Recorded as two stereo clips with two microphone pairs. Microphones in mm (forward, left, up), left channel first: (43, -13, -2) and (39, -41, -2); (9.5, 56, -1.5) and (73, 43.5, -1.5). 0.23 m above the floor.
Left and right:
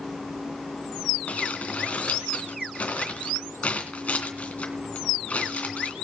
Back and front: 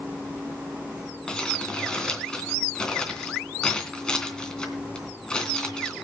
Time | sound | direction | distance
1.3 | crumpling | 90° left | 3 m